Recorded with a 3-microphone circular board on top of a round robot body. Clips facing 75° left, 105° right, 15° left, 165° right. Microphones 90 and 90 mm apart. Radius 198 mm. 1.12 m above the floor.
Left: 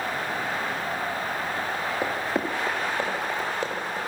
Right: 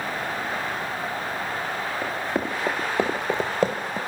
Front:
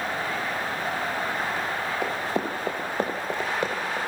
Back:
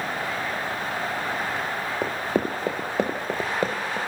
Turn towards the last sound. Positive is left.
turn(degrees=-95)